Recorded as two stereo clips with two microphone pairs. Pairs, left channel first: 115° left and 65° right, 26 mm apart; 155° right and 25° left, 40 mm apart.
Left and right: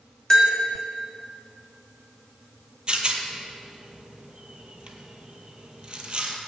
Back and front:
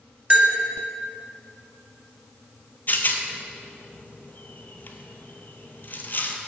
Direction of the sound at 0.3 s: 50° left.